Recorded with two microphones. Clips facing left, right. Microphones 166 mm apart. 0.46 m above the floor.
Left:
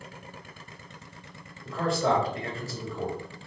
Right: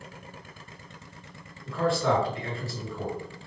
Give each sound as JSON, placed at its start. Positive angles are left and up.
{"t": 1.6, "sound": "a man speaking", "side_deg": 40, "distance_m": 1.8}